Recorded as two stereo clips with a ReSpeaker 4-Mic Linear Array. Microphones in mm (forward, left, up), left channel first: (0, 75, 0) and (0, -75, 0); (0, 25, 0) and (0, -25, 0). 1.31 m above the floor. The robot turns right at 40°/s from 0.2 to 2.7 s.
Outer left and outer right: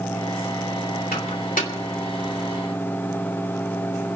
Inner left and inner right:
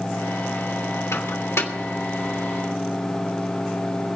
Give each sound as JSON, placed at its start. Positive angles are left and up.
{"t": 1.1, "sound": "a microwave", "side_deg": 85, "distance_m": 2.5}